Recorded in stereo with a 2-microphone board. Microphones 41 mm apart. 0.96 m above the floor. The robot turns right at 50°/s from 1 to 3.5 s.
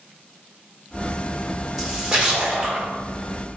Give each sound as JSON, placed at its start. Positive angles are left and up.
{"t": 1.8, "sound": "a splash", "azimuth_deg": -170, "distance_m": 1.2}